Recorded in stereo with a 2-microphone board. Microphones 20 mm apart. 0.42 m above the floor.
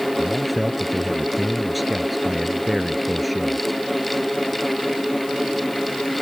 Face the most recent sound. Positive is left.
turn(degrees=0)  # may be behind; listen again after turning